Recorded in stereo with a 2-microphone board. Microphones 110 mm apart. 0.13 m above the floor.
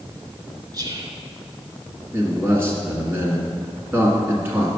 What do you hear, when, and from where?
0.7 s whispering: 40° right (ahead or behind), 1.4 m
2.1 s a man speaking: 20° right (ahead or behind), 1.6 m